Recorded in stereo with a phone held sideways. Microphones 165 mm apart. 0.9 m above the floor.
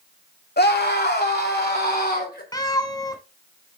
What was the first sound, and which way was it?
A scream, 80° left.